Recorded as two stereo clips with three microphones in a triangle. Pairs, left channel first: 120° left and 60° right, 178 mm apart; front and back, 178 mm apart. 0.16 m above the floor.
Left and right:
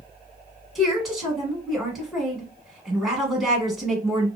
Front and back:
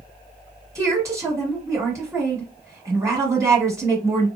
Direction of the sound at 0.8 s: 145° right.